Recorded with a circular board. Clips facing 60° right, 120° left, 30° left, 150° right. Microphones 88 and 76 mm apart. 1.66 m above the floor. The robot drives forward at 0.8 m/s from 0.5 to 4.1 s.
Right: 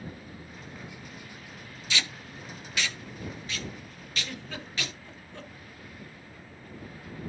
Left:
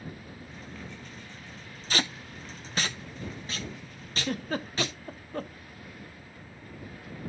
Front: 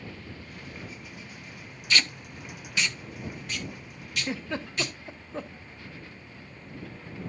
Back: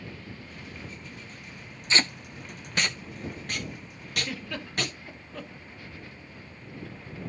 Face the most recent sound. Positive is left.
turn(degrees=90)